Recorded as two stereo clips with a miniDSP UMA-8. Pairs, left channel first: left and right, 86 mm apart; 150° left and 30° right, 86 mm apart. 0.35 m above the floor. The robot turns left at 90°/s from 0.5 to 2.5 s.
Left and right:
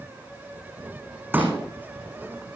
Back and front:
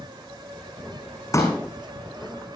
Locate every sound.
1.3 s a pop: 155° right, 5.5 m; by 1.6 s straight behind, 5.5 m